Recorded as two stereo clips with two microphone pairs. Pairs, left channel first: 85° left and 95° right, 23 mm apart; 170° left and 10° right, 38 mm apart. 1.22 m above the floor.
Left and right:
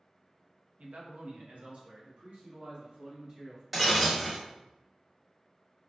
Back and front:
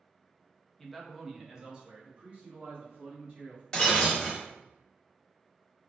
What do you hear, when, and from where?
0.8 s a man speaking: 110° right, 0.5 m; by 3.6 s 60° right, 1.7 m
3.7 s breaking glass: 160° right, 1.0 m